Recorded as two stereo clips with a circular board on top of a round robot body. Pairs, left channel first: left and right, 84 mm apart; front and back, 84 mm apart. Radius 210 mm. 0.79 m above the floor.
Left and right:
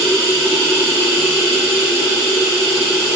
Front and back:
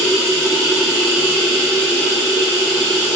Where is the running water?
105° right, 0.8 m.